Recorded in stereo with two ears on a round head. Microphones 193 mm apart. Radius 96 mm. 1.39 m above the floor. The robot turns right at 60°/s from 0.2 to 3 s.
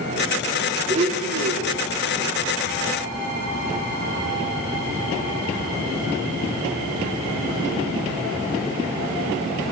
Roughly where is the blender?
Behind right.